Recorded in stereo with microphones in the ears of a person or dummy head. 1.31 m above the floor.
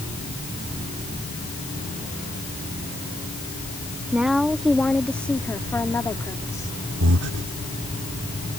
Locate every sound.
4.1 s a woman speaking: 5° right (ahead or behind); by 6.8 s 15° left (ahead or behind)
7.0 s breathing: 75° right (ahead or behind)